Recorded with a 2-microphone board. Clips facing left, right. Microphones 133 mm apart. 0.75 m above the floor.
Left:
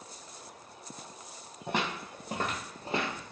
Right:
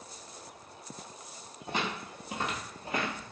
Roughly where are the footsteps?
Left.